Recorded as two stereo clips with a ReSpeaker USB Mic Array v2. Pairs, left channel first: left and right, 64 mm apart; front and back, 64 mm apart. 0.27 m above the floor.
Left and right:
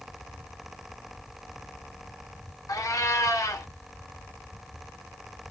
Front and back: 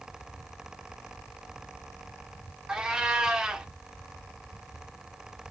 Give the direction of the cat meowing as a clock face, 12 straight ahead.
9 o'clock.